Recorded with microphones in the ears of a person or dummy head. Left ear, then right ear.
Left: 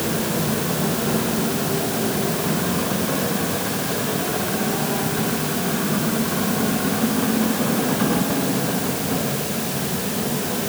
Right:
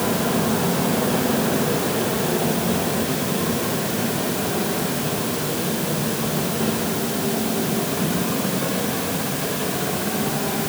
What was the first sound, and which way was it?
Only background noise.